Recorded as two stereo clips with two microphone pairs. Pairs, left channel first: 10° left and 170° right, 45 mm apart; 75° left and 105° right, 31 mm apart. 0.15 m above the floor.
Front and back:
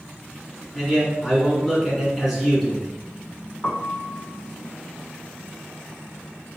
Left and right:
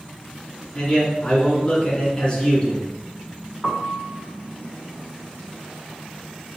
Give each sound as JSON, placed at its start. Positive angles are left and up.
{"t": 0.8, "sound": "a man speaking", "azimuth_deg": 110, "distance_m": 1.7}
{"t": 3.6, "sound": "a piano", "azimuth_deg": -25, "distance_m": 0.6}